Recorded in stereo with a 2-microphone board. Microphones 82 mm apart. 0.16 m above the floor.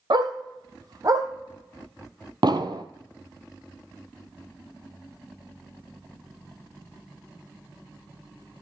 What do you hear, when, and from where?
0.1 s a dog barking: 60° right (ahead or behind), 1.7 m; by 1.3 s 45° right (ahead or behind), 2 m
2.4 s an explosion: 60° right (ahead or behind), 1.0 m